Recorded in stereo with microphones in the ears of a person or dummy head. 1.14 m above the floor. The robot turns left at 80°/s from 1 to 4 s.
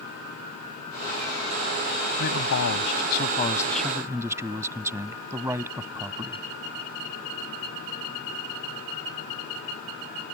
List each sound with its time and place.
2.2 s a man speaking: 135° left; by 6.5 s 10° right